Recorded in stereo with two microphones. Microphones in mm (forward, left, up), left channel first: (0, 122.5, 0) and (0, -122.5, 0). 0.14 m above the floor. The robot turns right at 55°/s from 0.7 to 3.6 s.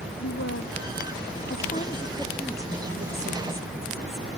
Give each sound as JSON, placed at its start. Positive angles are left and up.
{"t": 0.2, "sound": "a woman speaking", "azimuth_deg": 90}